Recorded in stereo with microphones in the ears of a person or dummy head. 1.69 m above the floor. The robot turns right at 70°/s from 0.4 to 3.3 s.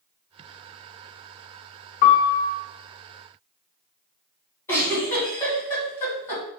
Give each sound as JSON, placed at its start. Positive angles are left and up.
{"t": 2.0, "sound": "a piano", "azimuth_deg": 130, "distance_m": 0.6}
{"t": 4.7, "sound": "a giggle", "side_deg": 20, "distance_m": 2.0}